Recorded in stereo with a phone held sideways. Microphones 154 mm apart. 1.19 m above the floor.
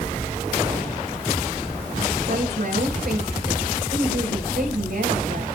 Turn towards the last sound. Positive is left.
turn(degrees=-80)